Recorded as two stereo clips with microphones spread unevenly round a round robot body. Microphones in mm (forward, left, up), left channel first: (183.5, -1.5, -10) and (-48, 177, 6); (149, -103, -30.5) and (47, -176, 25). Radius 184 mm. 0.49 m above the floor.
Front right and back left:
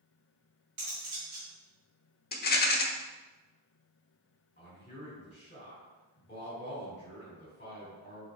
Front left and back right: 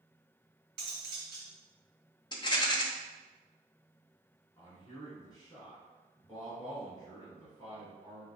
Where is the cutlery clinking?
165° right, 1.5 m.